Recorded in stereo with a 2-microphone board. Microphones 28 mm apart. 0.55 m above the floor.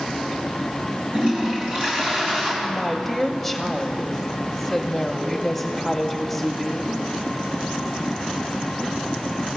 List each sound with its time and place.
1.1 s a toilet flushing: 45° right (ahead or behind), 3.5 m
2.6 s a woman speaking: centre (ahead or behind), 0.9 m